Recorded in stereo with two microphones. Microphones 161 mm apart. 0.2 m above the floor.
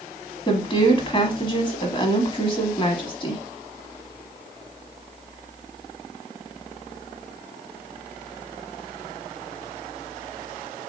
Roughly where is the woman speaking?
Left.